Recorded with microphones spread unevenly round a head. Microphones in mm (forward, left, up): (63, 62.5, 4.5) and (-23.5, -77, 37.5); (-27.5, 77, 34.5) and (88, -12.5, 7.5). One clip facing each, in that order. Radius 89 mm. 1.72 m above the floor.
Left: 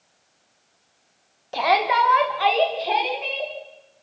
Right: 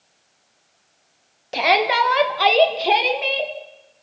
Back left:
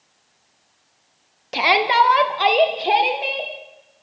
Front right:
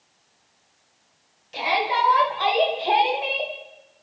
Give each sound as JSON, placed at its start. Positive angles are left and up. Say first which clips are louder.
{"t": 1.5, "sound": "a shout", "louder": "right 1 dB, back left 6 dB", "azimuth_deg": 170, "distance_m": 2.5}